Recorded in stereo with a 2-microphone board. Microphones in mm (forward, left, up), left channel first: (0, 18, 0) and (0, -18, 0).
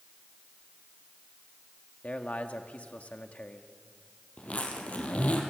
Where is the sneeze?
I don't hear a sneeze.